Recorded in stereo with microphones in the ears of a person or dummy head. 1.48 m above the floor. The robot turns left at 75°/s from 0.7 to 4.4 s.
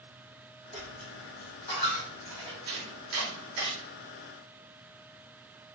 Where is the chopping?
55° right (ahead or behind), 1.3 m; by 3.7 s 45° right (ahead or behind), 1.3 m.